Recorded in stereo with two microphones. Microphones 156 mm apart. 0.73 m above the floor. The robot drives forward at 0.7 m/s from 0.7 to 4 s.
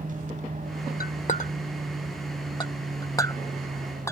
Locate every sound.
0.0 s an aircraft: 60° right (ahead or behind); by 4.1 s 55° right (ahead or behind)
1.0 s a clink: 65° left (ahead or behind); by 4.1 s 20° left (ahead or behind)